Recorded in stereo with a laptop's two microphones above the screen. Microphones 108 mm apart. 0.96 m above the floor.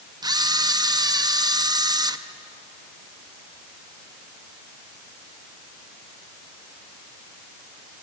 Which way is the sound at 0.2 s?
40° right (ahead or behind).